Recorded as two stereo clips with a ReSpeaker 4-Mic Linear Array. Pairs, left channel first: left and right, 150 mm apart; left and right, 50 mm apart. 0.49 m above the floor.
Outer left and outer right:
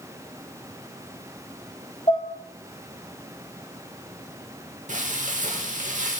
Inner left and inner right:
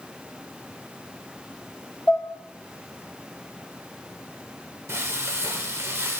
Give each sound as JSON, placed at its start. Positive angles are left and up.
{"t": 2.1, "sound": "dishes clattering", "side_deg": 35, "distance_m": 1.3}
{"t": 4.9, "sound": "frying", "side_deg": -60, "distance_m": 0.9}